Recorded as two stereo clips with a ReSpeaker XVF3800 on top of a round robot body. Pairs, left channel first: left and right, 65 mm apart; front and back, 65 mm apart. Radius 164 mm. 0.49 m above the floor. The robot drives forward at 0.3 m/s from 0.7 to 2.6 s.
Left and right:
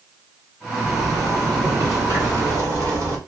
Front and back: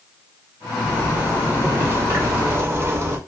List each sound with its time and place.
0.8 s a zipper: 115° right, 1.4 m; by 3.2 s 135° right, 1.7 m